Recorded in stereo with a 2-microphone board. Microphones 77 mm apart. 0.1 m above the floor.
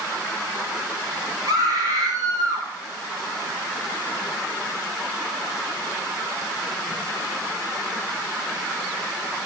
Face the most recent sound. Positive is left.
turn(degrees=-65)  # may be behind; listen again after turning